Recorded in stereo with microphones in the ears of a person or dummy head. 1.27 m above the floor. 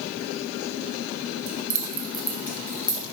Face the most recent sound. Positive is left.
turn(degrees=30)  # may be behind; listen again after turning